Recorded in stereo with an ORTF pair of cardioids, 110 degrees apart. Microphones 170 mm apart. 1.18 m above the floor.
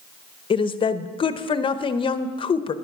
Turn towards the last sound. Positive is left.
turn(degrees=30)